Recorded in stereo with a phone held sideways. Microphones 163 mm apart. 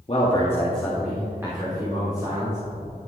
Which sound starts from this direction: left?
A man speaking, at 0.1 s.